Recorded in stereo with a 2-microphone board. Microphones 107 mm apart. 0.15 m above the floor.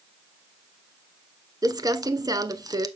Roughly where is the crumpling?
Right.